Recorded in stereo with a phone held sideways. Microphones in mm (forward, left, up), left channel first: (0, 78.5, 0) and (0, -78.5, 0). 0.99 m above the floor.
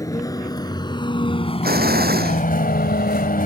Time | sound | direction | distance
0.0 | a vehicle | 20° left (ahead or behind) | ?
1.6 | an explosion | 80° right | ?